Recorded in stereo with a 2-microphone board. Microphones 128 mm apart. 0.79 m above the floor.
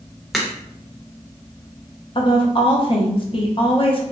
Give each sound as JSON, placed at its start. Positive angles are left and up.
{"t": 0.3, "sound": "a crack", "side_deg": 0, "distance_m": 0.6}
{"t": 2.1, "sound": "a woman speaking", "side_deg": 45, "distance_m": 0.7}